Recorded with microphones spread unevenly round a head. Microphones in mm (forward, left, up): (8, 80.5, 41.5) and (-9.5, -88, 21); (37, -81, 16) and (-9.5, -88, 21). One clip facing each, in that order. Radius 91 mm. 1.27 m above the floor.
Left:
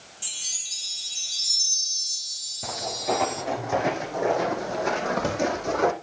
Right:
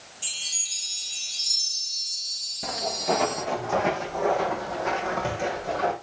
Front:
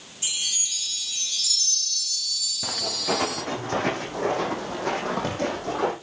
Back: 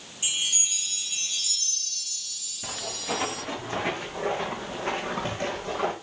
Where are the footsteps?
10° right, 5.5 m; by 5.9 s 55° left, 4 m.